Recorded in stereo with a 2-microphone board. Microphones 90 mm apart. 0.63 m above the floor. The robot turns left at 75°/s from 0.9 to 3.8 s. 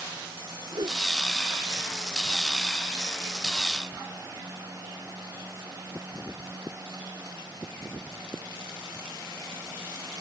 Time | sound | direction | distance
0.7 | a whoosh | 55° right (ahead or behind) | ?